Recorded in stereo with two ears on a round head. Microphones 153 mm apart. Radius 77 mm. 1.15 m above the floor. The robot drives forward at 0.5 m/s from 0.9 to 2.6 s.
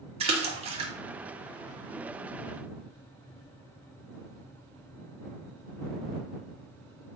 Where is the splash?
35° right (ahead or behind), 2.0 m.